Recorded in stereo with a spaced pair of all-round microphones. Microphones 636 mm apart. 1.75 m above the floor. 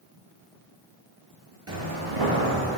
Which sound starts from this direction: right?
Footsteps, at 1.7 s.